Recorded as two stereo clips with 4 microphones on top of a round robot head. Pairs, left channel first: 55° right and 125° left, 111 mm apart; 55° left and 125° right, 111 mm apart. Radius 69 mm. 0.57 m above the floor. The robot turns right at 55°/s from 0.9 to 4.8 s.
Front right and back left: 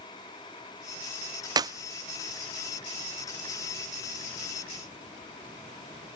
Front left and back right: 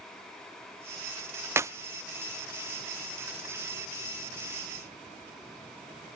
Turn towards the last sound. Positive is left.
turn(degrees=-10)